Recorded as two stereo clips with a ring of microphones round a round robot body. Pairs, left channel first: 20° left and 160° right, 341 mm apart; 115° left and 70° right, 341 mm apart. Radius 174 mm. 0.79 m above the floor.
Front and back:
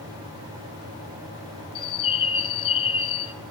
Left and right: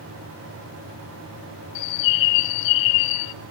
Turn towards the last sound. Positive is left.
turn(degrees=95)